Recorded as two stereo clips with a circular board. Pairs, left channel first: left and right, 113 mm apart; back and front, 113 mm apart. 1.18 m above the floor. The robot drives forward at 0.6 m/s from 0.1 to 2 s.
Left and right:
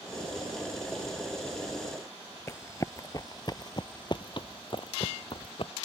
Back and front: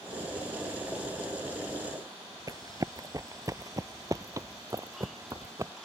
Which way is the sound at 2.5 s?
40° left.